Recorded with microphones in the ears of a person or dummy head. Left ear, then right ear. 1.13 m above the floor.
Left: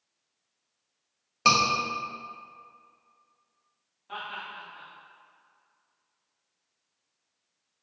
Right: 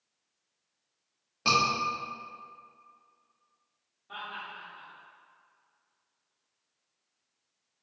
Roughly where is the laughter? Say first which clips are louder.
Left 3 dB; left.